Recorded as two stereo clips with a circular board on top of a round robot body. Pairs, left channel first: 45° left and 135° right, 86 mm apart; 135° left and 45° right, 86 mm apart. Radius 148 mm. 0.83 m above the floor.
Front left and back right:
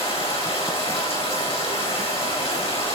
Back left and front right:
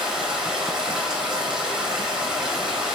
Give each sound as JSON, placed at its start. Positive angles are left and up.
{"t": 0.0, "sound": "running water", "azimuth_deg": 35, "distance_m": 5.5}